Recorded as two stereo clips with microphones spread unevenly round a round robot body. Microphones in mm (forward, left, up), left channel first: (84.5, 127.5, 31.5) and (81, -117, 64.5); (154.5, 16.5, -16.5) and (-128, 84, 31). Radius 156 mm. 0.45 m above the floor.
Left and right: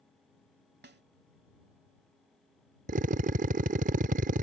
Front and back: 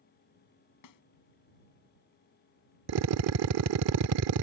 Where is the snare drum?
40° right.